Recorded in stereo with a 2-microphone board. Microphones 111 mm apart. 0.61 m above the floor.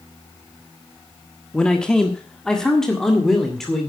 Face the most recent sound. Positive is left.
turn(degrees=5)  # may be behind; listen again after turning